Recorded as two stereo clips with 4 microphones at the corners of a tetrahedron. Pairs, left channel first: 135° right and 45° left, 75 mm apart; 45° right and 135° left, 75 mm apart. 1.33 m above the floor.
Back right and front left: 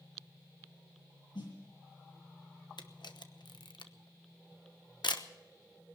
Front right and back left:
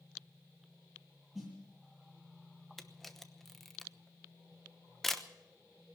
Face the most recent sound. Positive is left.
turn(degrees=-130)